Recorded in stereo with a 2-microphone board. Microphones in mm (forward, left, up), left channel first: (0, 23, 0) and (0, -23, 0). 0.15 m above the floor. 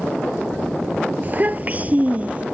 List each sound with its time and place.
1.2 s a child speaking: 40° right (ahead or behind); by 2.4 s 30° right (ahead or behind)